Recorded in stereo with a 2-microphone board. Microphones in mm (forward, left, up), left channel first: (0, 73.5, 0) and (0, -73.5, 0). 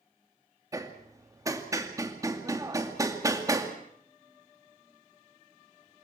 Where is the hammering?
20° right (ahead or behind), 2 m.